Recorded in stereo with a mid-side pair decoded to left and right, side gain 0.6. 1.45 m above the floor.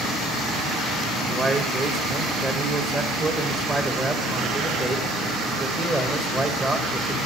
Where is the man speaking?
20° right, 1.5 m.